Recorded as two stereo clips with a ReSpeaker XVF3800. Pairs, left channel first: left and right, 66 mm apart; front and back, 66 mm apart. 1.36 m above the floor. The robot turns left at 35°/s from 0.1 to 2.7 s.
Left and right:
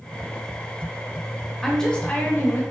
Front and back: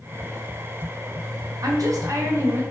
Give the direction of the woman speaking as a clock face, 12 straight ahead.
6 o'clock.